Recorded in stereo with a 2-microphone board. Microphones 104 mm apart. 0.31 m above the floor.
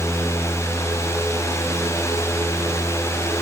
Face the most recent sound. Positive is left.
No sound to turn to.